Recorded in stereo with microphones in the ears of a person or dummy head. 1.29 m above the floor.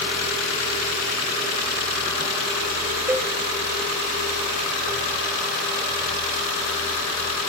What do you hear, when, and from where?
3.1 s a cowbell: 10° right (ahead or behind), 1.1 m